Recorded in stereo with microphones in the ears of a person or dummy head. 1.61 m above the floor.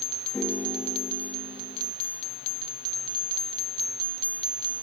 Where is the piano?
10° left (ahead or behind).